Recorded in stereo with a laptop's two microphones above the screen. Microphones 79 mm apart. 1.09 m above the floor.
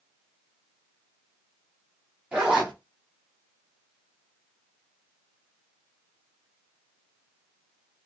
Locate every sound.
2.3 s a zipper: 15° right (ahead or behind), 1.7 m